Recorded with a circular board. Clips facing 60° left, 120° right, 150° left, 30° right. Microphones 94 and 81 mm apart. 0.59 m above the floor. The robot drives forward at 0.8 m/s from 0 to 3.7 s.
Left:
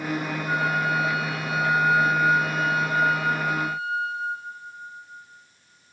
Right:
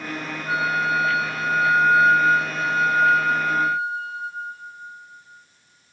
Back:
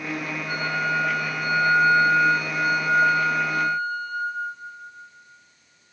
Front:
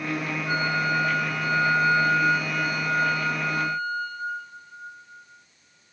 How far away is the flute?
About 1.1 m.